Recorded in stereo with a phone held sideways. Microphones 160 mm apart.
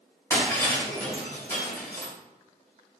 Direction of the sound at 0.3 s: 15° left (ahead or behind).